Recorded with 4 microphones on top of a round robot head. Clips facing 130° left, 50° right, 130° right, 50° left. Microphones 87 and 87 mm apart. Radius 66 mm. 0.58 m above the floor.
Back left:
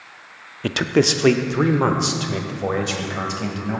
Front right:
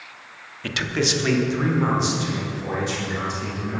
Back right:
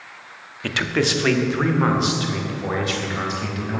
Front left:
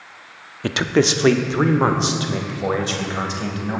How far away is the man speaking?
About 0.8 m.